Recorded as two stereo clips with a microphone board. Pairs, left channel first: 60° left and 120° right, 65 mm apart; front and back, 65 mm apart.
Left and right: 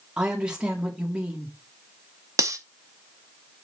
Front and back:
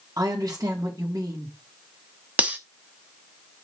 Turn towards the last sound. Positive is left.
turn(degrees=-115)